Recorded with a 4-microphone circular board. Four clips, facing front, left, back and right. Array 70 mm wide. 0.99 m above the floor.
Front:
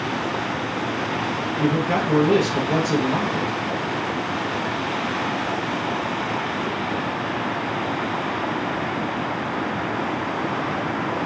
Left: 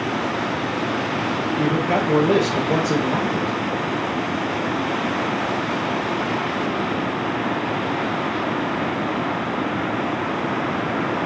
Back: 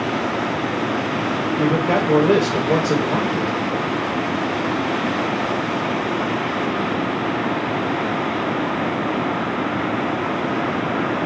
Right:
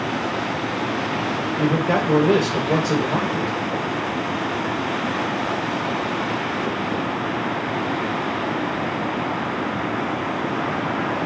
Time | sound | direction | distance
1.6 | a man speaking | 165° right | 1.5 m